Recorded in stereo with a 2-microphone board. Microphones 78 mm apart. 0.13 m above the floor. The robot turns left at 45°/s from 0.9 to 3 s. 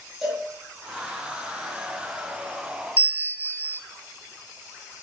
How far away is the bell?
About 0.5 m.